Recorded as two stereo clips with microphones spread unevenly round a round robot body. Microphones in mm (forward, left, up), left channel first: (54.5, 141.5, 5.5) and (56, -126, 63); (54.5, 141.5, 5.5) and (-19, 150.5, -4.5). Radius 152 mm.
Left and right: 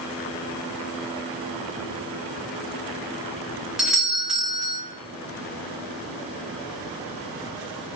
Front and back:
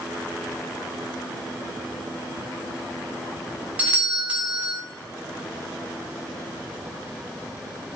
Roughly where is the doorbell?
Behind.